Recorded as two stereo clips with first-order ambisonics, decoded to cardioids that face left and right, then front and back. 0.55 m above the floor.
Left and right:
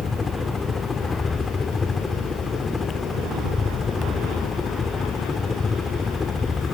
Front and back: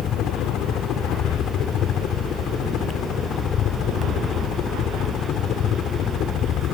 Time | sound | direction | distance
0.0 | a helicopter | 25° left | ?